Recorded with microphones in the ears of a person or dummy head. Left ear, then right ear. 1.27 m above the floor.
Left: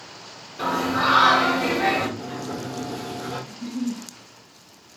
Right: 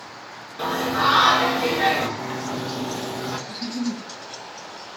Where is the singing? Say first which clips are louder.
Right 1 dB; 25° right (ahead or behind), 2.5 m.